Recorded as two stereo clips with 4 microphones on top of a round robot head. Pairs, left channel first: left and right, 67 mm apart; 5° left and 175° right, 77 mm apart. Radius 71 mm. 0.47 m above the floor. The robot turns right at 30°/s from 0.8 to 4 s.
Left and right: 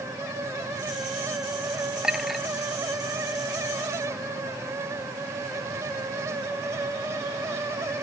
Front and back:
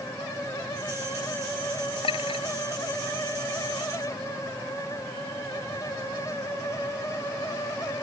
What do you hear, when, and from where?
2.0 s a clink: 10° right; by 2.5 s straight ahead